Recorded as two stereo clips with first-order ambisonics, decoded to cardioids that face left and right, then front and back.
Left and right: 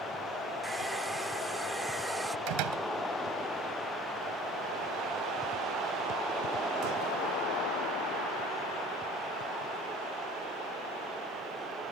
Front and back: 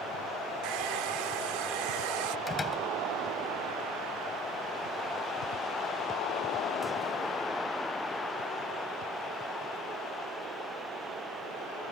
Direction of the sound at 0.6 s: 170° right.